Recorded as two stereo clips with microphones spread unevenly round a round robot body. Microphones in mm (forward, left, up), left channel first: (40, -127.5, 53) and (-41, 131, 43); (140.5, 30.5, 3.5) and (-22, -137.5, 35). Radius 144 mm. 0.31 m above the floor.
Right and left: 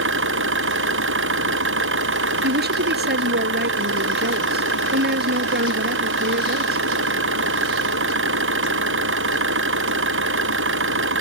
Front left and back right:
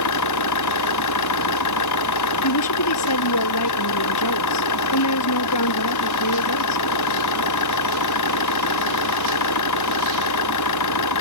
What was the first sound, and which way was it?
An engine running, 60° left.